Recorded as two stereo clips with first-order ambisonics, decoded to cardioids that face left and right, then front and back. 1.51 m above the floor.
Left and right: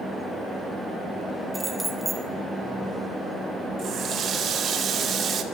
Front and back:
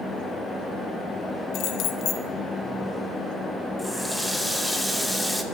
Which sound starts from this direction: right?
A running tap, at 3.8 s.